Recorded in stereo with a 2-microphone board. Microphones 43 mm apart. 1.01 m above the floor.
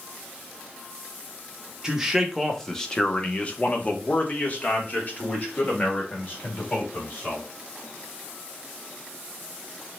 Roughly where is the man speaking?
Centre.